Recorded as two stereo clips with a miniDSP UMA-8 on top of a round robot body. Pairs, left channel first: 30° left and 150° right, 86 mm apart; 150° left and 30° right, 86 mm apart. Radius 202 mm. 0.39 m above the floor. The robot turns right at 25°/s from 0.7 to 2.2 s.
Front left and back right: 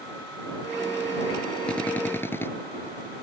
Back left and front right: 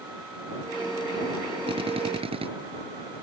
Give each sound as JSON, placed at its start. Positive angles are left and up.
{"t": 1.7, "sound": "a drill", "azimuth_deg": -50}